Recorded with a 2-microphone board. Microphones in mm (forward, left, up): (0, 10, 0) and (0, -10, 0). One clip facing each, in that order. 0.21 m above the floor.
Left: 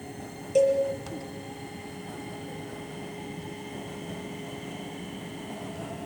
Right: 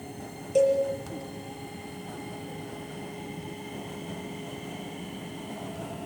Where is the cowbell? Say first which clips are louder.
Even; 10° left (ahead or behind), 6 m.